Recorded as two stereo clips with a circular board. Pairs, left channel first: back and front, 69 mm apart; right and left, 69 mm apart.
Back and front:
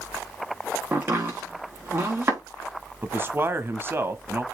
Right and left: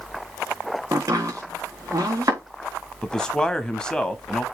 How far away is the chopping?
About 4 m.